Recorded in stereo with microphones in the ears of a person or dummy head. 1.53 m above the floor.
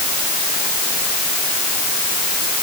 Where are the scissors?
No scissors in this recording.